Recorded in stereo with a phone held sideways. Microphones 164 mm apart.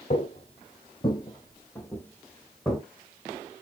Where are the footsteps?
40° left (ahead or behind), 1.3 m; by 2.8 s centre (ahead or behind), 1.7 m.